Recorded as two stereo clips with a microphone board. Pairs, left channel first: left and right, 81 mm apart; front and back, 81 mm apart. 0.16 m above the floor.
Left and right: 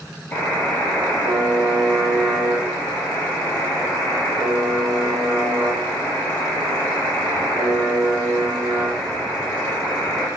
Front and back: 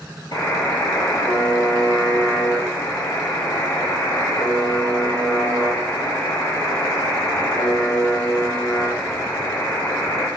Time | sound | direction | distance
0.3 | a buzzer | 20° left | 3 m